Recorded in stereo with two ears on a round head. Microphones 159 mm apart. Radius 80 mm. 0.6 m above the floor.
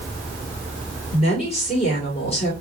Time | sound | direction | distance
1.1 | a woman speaking | 35° left (ahead or behind) | 2.5 m